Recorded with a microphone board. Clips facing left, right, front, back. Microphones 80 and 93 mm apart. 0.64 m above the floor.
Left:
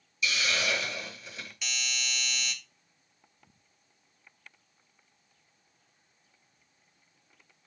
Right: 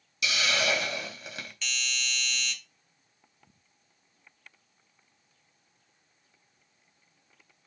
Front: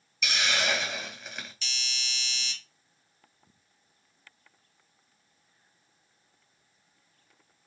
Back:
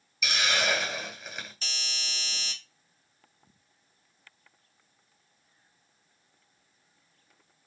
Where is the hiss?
95° right, 2.5 m.